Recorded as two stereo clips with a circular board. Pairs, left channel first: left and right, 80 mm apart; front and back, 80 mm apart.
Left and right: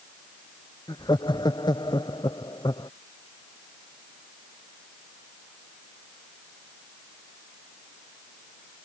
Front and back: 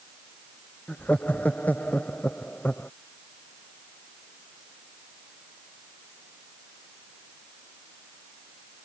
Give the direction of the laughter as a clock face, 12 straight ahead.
10 o'clock.